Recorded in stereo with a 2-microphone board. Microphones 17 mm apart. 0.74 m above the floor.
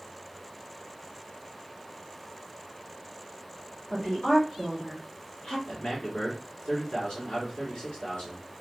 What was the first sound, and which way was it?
A woman speaking, 40° left (ahead or behind).